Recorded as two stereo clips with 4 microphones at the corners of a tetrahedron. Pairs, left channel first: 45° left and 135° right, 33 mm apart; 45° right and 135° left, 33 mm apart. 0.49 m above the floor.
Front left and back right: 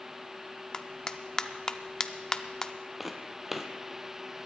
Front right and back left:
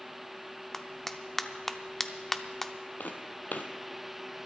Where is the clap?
25° left, 0.6 m.